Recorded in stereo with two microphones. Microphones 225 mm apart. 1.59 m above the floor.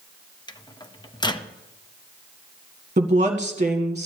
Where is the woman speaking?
30° right (ahead or behind), 1.6 m.